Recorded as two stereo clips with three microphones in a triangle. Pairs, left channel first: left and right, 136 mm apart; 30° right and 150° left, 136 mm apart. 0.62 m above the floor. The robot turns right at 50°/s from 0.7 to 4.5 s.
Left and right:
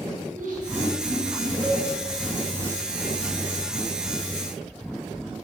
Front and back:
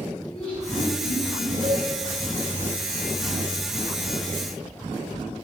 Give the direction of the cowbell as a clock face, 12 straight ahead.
6 o'clock.